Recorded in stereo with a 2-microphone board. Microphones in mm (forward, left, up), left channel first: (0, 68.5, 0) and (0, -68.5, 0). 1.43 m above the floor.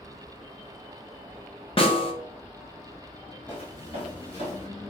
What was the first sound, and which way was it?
A snare drum, 40° left (ahead or behind).